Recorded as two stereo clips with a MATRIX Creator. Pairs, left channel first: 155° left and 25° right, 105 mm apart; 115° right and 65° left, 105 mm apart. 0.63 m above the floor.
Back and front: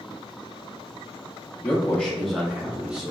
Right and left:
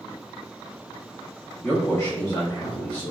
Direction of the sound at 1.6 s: 160° right.